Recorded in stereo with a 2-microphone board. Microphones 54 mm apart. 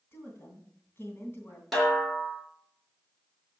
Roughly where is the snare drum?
Centre.